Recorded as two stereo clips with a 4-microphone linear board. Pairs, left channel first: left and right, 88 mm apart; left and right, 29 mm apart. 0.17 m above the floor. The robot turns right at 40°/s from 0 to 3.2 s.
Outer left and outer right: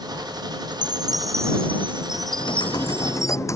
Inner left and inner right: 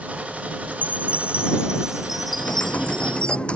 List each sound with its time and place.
0.7 s a chime: 60° right; by 3.4 s 40° left
2.4 s typing on a keyboard: 110° left; by 3.6 s 145° left